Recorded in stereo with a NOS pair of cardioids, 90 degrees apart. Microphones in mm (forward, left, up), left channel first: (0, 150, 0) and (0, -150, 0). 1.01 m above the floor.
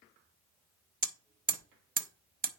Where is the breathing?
No breathing in this recording.